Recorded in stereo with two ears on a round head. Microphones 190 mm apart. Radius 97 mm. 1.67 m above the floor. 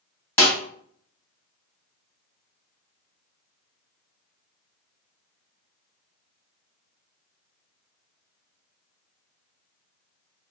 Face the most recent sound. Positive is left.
turn(degrees=15)  # may be behind; listen again after turning